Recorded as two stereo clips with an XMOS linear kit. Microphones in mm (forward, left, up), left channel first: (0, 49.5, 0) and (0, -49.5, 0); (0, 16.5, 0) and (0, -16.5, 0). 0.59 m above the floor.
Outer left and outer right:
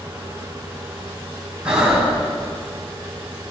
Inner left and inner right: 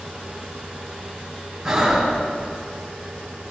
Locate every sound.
1.6 s breathing: 10° right (ahead or behind), 4 m